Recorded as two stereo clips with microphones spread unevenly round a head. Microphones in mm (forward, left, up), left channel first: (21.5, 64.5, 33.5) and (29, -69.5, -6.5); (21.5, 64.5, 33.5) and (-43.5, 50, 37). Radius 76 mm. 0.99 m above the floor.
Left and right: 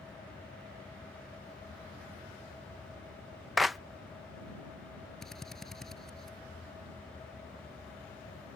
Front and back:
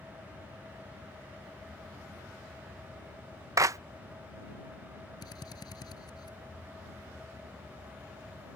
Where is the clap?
160° right.